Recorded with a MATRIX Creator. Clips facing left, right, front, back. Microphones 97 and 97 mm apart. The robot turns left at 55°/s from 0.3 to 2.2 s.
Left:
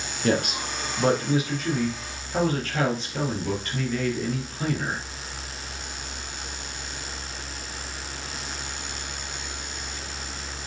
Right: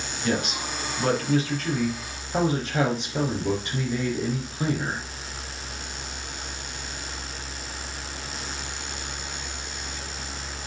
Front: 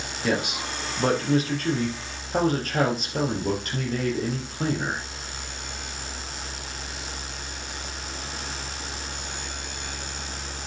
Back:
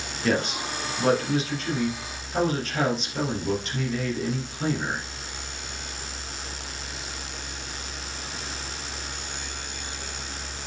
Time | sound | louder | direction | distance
0.2 | a man speaking | left 3 dB, back 1 dB | 80° left | 3 m